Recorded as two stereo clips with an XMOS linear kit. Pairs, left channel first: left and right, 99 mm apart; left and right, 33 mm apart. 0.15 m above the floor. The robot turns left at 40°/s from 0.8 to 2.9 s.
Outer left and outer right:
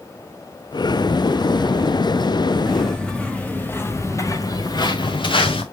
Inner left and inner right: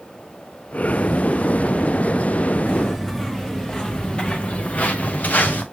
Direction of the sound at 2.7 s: 5° right (ahead or behind).